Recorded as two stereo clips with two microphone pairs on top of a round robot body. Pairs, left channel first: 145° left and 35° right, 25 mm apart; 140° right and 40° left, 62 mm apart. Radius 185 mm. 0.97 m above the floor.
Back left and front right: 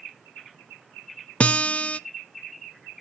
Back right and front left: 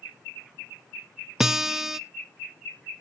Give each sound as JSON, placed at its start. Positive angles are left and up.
{"t": 1.4, "sound": "a guitar", "azimuth_deg": 130, "distance_m": 0.6}